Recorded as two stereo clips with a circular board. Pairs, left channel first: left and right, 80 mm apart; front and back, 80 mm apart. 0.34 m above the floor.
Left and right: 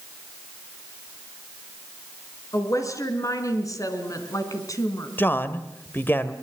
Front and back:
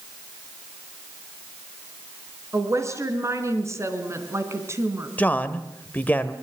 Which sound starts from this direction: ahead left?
A man speaking, at 5.2 s.